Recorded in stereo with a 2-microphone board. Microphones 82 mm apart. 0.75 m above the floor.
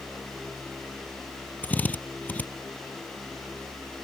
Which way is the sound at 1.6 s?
20° left (ahead or behind).